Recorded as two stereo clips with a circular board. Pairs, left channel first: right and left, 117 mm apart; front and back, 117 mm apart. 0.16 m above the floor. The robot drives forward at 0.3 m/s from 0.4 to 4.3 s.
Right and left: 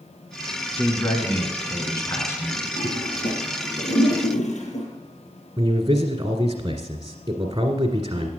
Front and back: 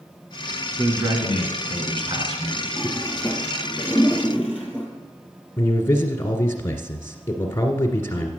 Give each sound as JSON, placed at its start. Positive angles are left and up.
{"t": 0.8, "sound": "a man speaking", "azimuth_deg": -135, "distance_m": 1.7}
{"t": 2.8, "sound": "a toilet flushing", "azimuth_deg": -90, "distance_m": 3.0}
{"t": 5.6, "sound": "a man speaking", "azimuth_deg": 60, "distance_m": 1.5}